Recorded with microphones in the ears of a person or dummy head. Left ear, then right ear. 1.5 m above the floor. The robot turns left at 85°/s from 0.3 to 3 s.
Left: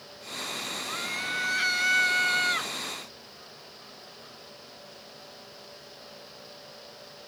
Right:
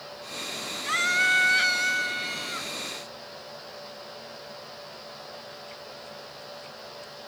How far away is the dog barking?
I don't hear a dog barking.